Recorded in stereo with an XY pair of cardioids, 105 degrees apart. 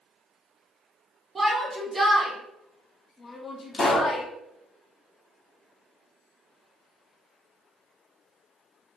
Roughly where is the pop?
Ahead left.